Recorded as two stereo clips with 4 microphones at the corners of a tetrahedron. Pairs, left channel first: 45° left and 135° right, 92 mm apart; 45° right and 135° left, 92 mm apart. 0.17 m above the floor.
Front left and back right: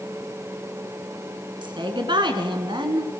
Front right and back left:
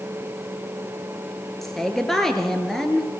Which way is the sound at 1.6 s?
130° right.